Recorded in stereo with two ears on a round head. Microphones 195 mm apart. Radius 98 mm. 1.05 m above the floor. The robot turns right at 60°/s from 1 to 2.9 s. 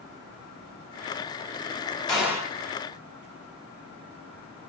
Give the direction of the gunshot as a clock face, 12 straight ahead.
6 o'clock.